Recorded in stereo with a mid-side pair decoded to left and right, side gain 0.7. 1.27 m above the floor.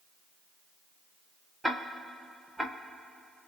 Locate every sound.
1.6 s ticking: straight ahead, 0.7 m